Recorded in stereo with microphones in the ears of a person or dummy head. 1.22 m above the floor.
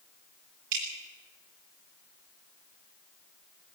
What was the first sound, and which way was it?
Dripping, 50° right (ahead or behind).